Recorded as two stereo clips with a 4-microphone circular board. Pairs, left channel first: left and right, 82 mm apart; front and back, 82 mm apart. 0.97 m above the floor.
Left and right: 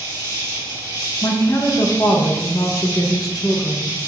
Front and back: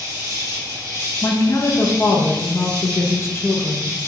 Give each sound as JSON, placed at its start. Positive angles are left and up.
{"t": 0.0, "sound": "an insect", "azimuth_deg": 130, "distance_m": 1.1}
{"t": 1.2, "sound": "a woman speaking", "azimuth_deg": 50, "distance_m": 0.5}